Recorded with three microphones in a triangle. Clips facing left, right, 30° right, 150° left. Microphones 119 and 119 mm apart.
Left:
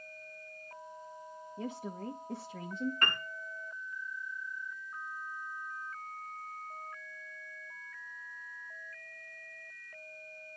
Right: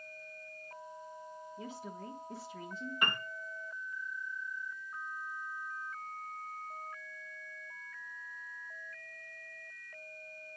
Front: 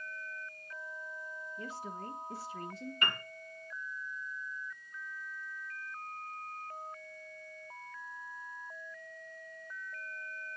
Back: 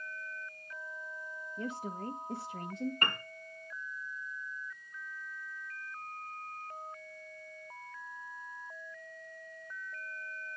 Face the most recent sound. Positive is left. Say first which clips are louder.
# even, back 1 dB
turn(degrees=-165)